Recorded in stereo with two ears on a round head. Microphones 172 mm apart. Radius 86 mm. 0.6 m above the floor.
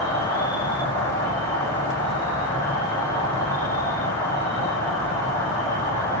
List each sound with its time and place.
0.0 s an insect: 15° left (ahead or behind), 1.6 m